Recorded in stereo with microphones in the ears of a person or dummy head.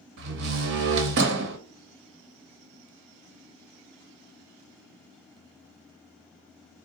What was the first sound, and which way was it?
A door slam, 60° right (ahead or behind).